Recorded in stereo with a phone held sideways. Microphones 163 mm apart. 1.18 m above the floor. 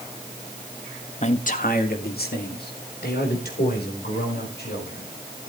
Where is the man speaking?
45° left (ahead or behind), 1.5 m; by 5.1 s 80° left, 6 m.